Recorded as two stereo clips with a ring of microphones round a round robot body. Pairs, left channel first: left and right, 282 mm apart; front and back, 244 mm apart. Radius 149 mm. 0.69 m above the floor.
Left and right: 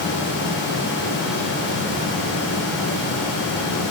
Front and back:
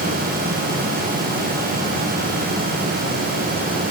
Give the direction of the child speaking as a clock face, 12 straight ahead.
No child speaking in this recording.